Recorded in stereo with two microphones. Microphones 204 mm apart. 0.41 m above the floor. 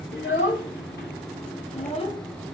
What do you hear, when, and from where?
0.1 s a child speaking: 65° left (ahead or behind), 1.4 m; by 2.5 s 5° left (ahead or behind), 0.7 m